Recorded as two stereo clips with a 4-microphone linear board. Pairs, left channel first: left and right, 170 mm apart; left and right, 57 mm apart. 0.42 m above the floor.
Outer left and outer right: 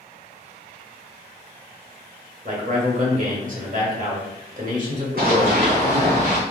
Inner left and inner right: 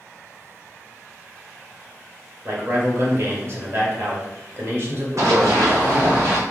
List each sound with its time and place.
2.5 s a man speaking: 50° right (ahead or behind), 1.3 m
5.2 s running footsteps: 60° right (ahead or behind), 1.3 m; by 6.4 s 45° right (ahead or behind), 2 m